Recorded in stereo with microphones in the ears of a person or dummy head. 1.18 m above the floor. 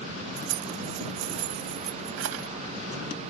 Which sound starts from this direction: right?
Keys jangling, at 0.4 s.